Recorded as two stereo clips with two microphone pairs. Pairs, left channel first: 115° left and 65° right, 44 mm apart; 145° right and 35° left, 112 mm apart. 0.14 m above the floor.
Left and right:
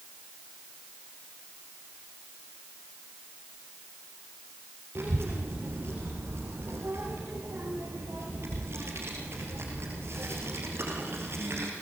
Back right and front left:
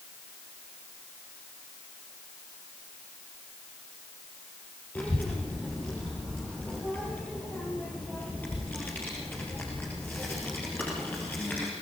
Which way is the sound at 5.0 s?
70° right.